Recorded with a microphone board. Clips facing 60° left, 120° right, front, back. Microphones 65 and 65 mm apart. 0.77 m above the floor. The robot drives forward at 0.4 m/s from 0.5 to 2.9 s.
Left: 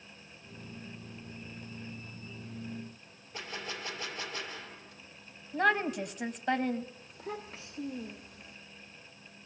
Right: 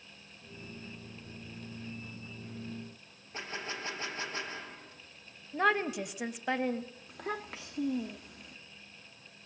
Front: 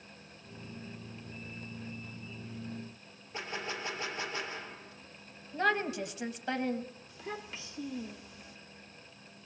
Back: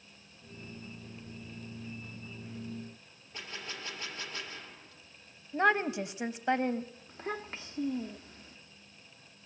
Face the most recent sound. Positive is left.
turn(degrees=-130)